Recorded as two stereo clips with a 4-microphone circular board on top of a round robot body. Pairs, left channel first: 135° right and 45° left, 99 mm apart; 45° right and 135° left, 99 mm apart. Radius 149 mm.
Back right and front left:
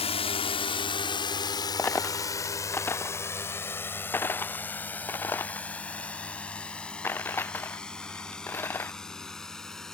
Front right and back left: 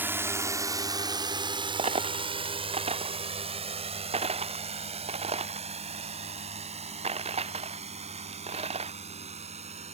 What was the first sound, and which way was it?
A drone, 155° right.